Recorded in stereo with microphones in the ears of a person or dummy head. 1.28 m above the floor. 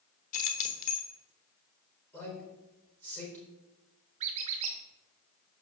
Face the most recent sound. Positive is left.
turn(degrees=-25)  # may be behind; listen again after turning